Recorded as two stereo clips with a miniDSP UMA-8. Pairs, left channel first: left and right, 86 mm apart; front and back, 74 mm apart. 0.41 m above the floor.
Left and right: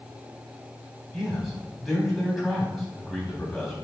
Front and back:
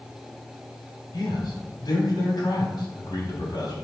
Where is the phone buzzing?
I don't hear a phone buzzing.